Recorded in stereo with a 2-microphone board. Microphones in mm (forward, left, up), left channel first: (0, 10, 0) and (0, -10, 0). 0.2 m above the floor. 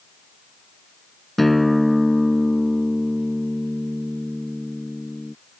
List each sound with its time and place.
1.4 s a guitar: 5° left (ahead or behind)